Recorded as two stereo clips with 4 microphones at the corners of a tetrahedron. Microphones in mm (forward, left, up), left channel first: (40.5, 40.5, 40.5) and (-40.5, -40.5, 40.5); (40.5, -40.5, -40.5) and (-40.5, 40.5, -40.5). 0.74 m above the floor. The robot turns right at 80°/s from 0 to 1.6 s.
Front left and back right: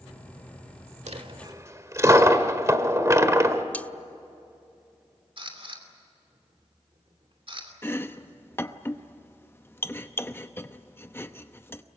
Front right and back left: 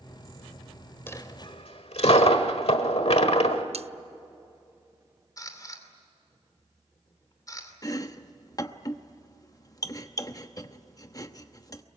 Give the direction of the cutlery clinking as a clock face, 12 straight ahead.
8 o'clock.